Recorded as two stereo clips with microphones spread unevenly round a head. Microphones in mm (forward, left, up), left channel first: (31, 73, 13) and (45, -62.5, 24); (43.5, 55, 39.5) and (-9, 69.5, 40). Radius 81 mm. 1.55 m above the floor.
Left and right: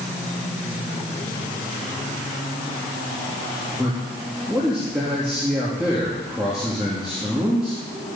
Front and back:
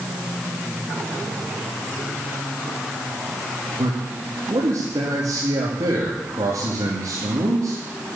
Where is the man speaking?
170° right, 2.5 m.